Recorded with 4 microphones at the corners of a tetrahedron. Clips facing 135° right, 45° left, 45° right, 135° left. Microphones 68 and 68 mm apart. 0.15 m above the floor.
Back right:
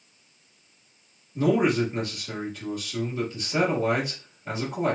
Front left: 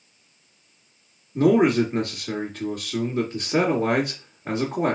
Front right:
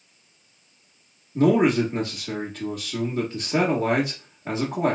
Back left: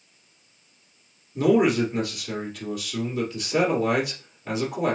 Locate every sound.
1.4 s a man speaking: 10° left, 2 m